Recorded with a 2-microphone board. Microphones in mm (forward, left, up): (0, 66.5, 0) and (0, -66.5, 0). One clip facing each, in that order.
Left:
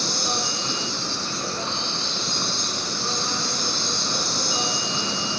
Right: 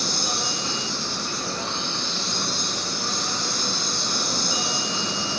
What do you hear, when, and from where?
0.0 s an insect: 30° left (ahead or behind), 1.6 m